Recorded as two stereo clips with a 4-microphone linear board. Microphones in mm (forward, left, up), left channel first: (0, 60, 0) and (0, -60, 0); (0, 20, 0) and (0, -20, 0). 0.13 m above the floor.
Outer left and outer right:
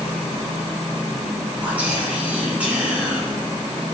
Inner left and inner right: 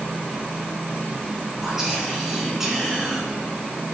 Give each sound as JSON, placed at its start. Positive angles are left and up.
{"t": 1.6, "sound": "whispering", "side_deg": -10, "distance_m": 1.1}